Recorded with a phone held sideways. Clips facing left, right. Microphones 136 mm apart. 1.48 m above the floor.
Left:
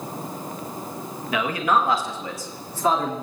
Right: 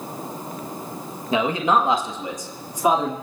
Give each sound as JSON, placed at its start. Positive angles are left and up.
{"t": 1.3, "sound": "a man speaking", "side_deg": -25, "distance_m": 1.3}